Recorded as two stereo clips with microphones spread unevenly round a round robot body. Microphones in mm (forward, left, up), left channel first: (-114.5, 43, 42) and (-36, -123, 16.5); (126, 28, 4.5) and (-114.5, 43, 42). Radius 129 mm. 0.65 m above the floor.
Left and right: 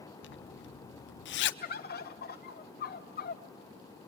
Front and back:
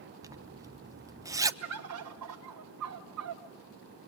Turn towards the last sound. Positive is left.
turn(degrees=150)